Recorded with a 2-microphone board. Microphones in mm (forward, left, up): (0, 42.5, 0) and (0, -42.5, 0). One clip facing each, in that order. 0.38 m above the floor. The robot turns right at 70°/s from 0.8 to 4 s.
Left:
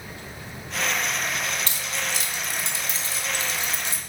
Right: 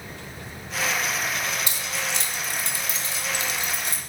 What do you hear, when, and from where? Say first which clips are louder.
1.7 s keys jangling: even; 15° right (ahead or behind), 0.5 m; by 4.0 s 20° left (ahead or behind), 0.5 m